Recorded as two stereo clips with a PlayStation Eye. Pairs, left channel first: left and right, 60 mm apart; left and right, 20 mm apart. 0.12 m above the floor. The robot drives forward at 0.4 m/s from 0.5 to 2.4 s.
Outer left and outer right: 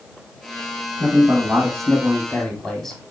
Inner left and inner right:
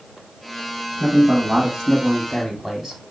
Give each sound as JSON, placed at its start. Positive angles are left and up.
{"t": 1.0, "sound": "a man speaking", "side_deg": 10, "distance_m": 2.5}